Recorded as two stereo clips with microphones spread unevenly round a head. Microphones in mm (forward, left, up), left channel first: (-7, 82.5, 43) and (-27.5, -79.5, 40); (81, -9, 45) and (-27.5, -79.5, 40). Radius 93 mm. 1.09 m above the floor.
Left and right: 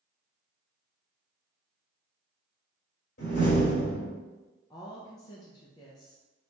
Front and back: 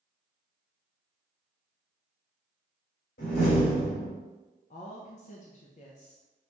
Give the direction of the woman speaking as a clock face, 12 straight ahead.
11 o'clock.